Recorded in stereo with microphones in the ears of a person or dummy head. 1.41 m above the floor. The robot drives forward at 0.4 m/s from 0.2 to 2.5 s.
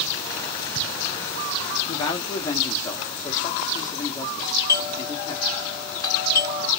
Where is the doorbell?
20° left (ahead or behind), 1.1 m.